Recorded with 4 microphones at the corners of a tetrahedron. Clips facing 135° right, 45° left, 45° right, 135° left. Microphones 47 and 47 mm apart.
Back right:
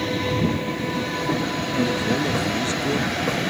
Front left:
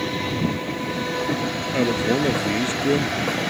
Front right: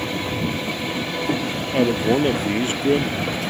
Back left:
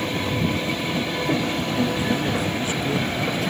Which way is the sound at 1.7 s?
15° right.